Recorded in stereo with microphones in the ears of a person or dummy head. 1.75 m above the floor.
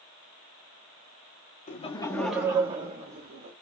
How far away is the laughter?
About 0.6 m.